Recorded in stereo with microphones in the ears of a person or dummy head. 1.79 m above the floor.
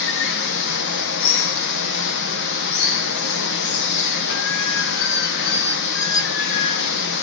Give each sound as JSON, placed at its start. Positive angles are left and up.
{"t": 0.0, "sound": "running water", "side_deg": 60, "distance_m": 1.1}